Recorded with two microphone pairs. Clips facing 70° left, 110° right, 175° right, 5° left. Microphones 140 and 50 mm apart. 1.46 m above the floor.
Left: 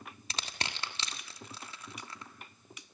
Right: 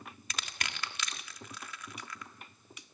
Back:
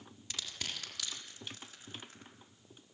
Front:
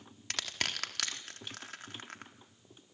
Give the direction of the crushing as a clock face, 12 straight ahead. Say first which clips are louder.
Left 2 dB, front 6 dB; 12 o'clock.